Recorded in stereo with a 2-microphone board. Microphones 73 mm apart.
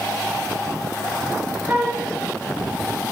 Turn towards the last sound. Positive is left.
turn(degrees=-25)  # may be behind; listen again after turning